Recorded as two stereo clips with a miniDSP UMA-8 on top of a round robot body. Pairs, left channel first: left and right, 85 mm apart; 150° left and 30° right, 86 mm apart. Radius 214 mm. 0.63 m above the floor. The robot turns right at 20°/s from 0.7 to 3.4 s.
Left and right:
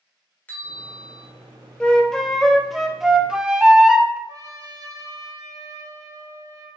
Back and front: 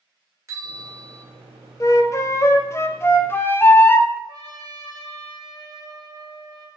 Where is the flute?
160° left, 0.6 m; by 4.2 s 165° right, 0.6 m.